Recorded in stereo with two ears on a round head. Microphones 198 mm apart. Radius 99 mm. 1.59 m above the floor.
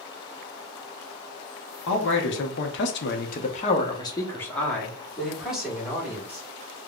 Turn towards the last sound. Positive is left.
turn(degrees=-10)  # may be behind; listen again after turning